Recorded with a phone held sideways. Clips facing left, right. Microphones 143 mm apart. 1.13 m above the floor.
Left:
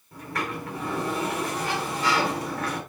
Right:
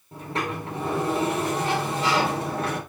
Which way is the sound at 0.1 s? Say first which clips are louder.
Right 2 dB; 25° right (ahead or behind).